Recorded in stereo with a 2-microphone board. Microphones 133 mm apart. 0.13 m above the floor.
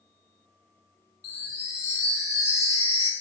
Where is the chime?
55° left (ahead or behind), 0.7 m.